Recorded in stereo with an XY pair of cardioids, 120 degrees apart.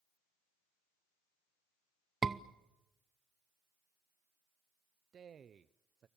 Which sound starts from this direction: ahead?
A scream, at 2.2 s.